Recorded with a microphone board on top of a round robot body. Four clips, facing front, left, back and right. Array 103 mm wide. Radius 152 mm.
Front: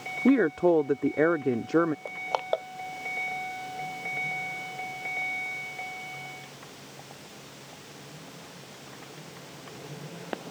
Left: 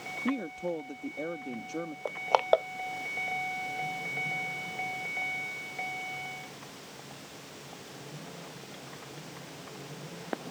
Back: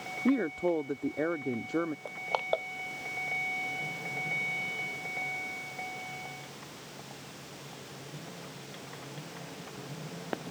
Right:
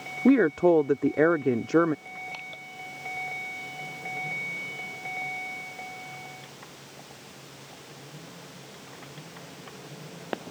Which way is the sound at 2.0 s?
85° left.